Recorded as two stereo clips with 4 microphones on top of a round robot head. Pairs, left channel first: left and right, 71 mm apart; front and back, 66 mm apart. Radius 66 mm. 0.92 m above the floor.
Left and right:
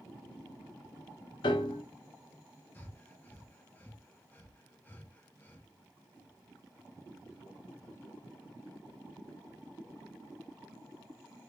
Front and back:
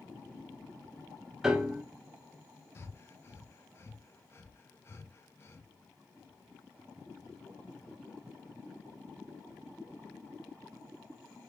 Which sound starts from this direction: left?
A piano, at 1.4 s.